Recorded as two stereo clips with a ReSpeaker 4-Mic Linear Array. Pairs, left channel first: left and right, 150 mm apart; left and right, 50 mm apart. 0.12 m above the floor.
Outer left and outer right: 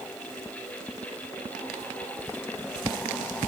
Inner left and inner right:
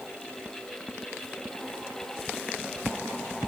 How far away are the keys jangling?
I don't hear keys jangling.